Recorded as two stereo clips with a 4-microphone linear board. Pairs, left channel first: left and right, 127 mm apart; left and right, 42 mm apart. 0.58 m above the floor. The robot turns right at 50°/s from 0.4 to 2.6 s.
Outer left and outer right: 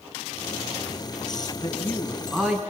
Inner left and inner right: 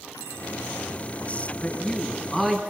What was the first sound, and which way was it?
A man speaking, 150° left.